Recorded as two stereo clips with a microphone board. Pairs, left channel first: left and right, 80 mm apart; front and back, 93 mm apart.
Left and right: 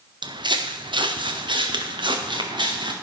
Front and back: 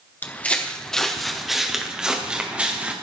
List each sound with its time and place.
0.2 s footsteps: 70° right, 1.4 m; by 2.9 s 105° right, 3 m